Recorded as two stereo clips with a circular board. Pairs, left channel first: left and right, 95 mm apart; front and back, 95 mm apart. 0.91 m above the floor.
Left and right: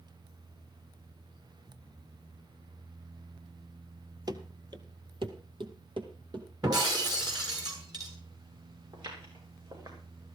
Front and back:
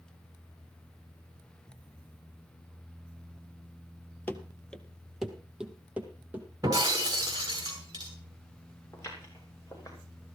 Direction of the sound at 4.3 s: 60° right.